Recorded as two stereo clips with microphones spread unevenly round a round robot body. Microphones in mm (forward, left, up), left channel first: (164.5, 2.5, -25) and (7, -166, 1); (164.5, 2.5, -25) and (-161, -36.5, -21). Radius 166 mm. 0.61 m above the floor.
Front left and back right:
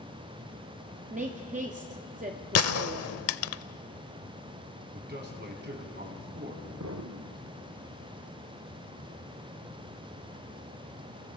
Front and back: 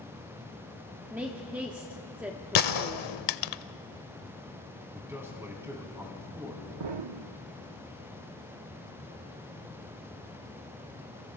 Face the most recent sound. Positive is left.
turn(degrees=180)